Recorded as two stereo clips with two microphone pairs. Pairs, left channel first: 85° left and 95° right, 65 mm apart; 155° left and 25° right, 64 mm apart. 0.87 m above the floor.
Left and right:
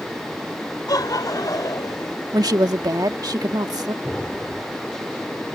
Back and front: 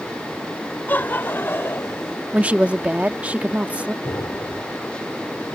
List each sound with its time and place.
0.9 s laughter: 95° left; by 2.2 s 105° left
2.3 s a woman speaking: 95° right
4.0 s an explosion: 160° left